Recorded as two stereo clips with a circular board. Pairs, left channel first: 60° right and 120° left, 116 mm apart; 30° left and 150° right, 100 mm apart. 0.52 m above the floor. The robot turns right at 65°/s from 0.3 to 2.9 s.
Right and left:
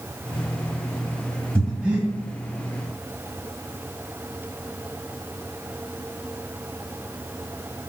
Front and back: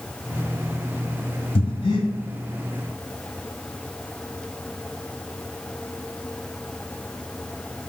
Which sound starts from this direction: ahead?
Breathing, at 1.6 s.